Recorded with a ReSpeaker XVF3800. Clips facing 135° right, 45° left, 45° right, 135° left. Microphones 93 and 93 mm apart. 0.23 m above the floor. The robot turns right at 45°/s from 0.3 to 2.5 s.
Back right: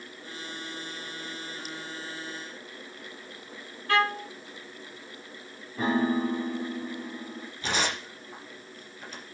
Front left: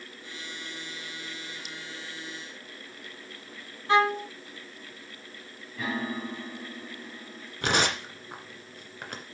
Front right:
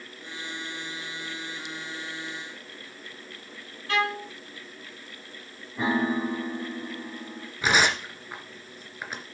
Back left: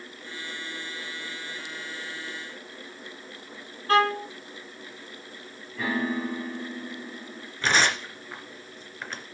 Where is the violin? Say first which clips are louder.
Front left 3 dB, back left 6 dB; 105° left, 1.5 m.